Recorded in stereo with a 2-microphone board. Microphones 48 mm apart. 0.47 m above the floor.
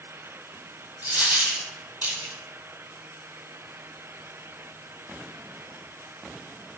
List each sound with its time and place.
1.0 s a dropped coin: 40° right (ahead or behind), 1.3 m